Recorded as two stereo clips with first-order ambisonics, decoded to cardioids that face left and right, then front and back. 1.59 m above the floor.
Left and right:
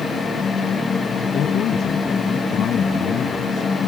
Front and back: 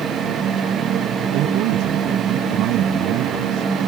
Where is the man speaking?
145° left; by 3.7 s 150° left.